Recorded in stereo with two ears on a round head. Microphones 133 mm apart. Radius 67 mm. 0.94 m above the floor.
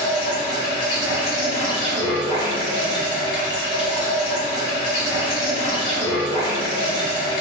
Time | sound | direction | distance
0.0 | running water | 35° left (ahead or behind) | 1.2 m